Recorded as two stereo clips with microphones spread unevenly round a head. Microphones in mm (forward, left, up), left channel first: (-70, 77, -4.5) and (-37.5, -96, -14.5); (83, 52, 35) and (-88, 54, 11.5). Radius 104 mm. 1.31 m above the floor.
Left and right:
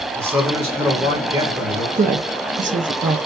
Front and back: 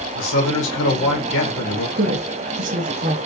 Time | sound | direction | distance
0.1 | a man speaking | 5° right | 1.7 m
2.0 | a woman speaking | 130° right | 0.7 m